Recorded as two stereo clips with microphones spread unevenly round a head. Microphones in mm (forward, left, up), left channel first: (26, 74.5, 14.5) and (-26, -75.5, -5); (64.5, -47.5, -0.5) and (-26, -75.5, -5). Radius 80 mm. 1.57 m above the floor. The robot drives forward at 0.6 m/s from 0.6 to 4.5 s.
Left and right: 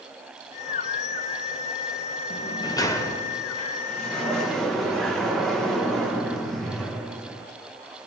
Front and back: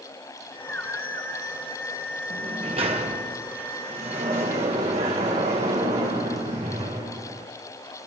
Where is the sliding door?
130° left, 1.0 m; by 7.5 s 160° left, 2 m.